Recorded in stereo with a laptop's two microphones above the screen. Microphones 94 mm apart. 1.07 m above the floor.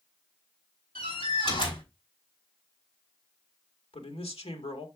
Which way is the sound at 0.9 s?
70° left (ahead or behind).